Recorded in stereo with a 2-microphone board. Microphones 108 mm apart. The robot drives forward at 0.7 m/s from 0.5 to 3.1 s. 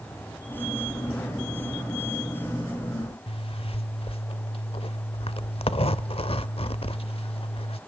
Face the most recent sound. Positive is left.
turn(degrees=60)  # may be behind; listen again after turning